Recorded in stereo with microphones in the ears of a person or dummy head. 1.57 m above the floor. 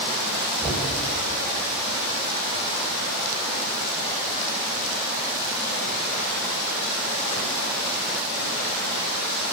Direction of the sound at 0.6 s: 25° right (ahead or behind).